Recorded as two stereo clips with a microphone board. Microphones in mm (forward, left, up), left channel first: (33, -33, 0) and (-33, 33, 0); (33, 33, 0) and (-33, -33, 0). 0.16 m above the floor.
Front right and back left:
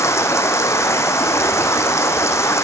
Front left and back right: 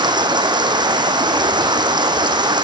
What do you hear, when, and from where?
0.0 s running water: 105° right, 1.1 m